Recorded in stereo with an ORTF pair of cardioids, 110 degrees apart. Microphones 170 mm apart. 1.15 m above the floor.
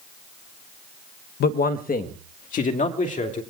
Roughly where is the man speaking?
Ahead left.